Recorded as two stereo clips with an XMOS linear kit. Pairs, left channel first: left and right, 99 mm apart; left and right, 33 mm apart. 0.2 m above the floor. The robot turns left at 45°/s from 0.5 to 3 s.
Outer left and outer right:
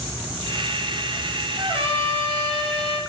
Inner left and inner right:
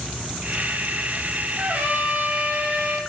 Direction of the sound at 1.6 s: 55° right.